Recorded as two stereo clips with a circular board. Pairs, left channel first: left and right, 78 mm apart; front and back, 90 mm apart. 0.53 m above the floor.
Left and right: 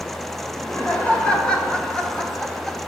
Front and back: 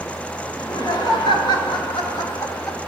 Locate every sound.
0.5 s laughter: 20° left, 2.5 m; by 2.8 s straight ahead, 1.4 m